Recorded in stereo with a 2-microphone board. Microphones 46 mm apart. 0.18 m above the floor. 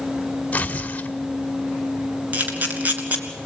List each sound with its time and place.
0.5 s tearing paper: 30° left (ahead or behind), 1.4 m
2.3 s a camera shutter: 40° right (ahead or behind), 2.5 m